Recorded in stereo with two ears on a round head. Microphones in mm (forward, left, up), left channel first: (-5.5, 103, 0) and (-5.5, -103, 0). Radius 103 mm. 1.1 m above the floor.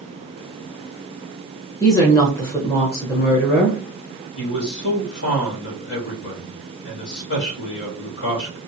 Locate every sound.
1.8 s a woman speaking: 15° left (ahead or behind), 1.0 m
4.4 s a man speaking: 50° left (ahead or behind), 2 m